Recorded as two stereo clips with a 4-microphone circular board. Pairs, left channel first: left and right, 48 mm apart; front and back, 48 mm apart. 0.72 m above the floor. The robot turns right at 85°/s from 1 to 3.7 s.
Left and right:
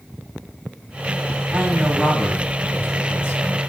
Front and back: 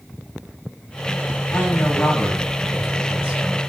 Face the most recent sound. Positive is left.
turn(degrees=150)